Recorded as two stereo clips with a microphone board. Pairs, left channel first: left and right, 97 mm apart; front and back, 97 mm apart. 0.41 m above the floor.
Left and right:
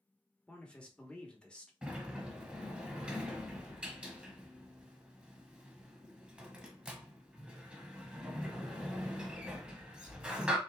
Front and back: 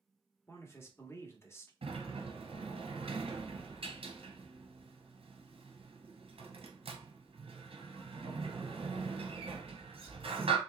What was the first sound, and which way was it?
A man speaking, 20° left.